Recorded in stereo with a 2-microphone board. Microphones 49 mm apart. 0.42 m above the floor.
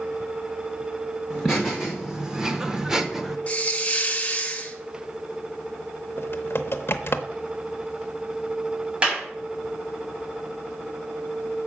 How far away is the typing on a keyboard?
About 0.6 m.